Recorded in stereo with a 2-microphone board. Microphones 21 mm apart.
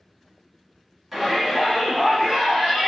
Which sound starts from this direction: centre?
A shout, at 1.1 s.